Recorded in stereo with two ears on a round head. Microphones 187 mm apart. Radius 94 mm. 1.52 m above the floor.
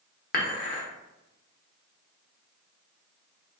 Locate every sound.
0.3 s dishes clattering: 45° left (ahead or behind), 1.0 m